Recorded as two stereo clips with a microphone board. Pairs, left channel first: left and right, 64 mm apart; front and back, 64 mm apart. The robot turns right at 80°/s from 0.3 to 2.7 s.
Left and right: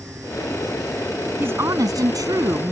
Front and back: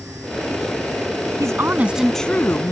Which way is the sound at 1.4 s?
145° right.